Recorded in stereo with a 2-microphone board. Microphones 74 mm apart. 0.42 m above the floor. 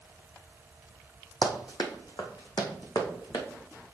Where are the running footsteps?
65° left (ahead or behind), 1.1 m; by 3.5 s 80° left, 2 m.